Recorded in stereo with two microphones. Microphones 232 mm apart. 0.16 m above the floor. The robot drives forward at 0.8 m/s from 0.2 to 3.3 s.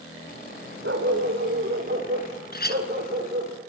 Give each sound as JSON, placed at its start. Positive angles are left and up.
{"t": 0.8, "sound": "a dog barking", "side_deg": -55, "distance_m": 4.0}
{"t": 2.5, "sound": "a clink", "side_deg": 45, "distance_m": 1.4}